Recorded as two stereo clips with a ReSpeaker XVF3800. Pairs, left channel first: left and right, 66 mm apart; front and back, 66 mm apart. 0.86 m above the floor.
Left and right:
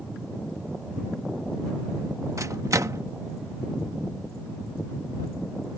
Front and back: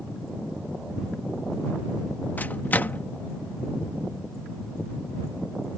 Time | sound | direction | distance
2.4 | a microwave | 60° right | ?